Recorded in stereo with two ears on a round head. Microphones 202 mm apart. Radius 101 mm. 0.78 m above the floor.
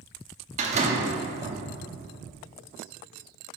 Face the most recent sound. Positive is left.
turn(degrees=-30)  # may be behind; listen again after turning